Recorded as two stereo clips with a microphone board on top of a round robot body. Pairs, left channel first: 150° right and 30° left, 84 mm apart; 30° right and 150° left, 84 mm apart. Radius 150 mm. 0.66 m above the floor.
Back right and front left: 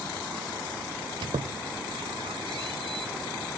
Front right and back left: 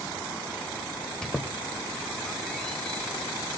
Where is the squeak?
55° left, 0.6 m.